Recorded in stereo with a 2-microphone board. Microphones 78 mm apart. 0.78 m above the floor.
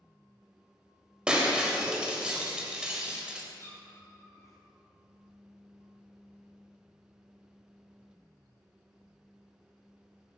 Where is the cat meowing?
40° left (ahead or behind), 2 m.